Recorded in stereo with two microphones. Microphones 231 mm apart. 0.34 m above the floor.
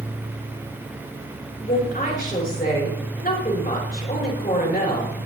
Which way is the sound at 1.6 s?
40° left (ahead or behind).